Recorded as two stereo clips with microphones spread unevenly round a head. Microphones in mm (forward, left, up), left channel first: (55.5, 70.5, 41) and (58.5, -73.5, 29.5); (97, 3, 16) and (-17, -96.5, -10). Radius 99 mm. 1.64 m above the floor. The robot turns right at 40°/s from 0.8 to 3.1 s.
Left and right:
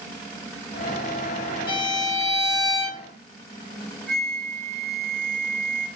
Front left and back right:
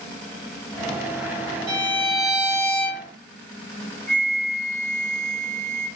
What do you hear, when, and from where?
1.7 s a violin: 130° left, 1.2 m; by 3.0 s 175° right, 1.2 m
4.1 s a flute: straight behind, 1.6 m